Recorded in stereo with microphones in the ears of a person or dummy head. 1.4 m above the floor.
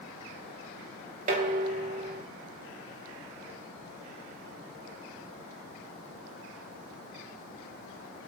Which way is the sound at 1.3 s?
45° right (ahead or behind).